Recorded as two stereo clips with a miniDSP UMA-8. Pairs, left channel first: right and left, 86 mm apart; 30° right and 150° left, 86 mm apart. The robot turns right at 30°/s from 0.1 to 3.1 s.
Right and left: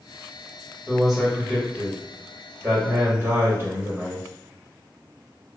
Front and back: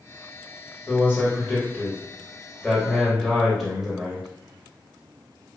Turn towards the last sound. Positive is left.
turn(degrees=70)